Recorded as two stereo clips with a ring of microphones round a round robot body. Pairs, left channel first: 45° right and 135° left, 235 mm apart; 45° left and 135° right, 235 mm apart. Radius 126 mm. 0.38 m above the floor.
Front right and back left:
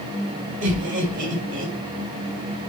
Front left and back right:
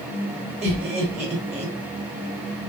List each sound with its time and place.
0.6 s laughter: 175° left, 1.8 m